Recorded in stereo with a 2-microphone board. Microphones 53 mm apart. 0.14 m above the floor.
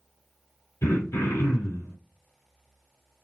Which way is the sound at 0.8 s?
65° left (ahead or behind).